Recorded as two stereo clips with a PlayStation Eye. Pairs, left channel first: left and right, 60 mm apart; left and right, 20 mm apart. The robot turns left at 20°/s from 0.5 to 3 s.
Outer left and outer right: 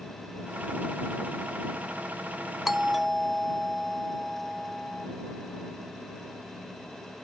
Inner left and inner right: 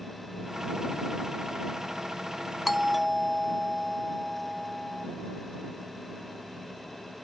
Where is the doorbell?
5° right (ahead or behind); by 5.1 s centre (ahead or behind).